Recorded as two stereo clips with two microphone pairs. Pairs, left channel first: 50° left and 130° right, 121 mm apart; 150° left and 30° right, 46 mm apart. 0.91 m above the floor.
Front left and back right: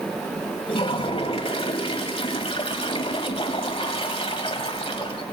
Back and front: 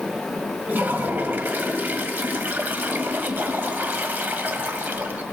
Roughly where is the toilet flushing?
Ahead.